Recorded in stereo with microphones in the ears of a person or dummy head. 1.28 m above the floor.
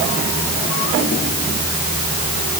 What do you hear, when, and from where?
Only background noise.